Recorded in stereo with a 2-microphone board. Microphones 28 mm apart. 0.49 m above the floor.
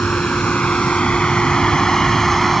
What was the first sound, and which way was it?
A vehicle, 65° left (ahead or behind).